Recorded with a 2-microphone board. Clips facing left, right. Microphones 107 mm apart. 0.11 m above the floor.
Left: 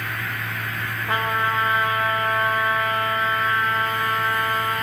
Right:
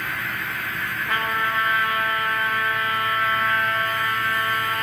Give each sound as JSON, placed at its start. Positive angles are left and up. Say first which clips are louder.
{"t": 1.1, "sound": "a trumpet", "louder": "left 2 dB", "side_deg": 25, "distance_m": 4.0}